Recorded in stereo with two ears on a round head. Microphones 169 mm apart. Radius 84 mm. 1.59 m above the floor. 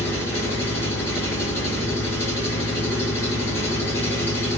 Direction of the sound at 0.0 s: 15° left (ahead or behind).